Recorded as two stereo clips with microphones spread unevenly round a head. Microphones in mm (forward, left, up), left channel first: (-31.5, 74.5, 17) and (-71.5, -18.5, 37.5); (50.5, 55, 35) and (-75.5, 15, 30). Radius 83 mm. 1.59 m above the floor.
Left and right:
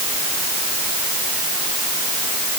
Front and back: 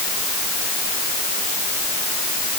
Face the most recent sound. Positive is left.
No sound to turn to.